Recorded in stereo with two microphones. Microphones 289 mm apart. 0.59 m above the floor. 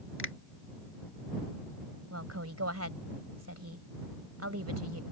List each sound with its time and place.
0.2 s a finger snap: 45° left (ahead or behind)
2.1 s a woman speaking: 55° right (ahead or behind)